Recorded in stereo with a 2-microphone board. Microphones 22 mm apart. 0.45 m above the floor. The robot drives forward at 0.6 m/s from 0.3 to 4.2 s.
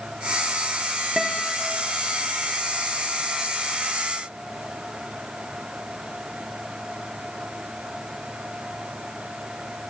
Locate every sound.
1.2 s a guitar: 25° right (ahead or behind), 5 m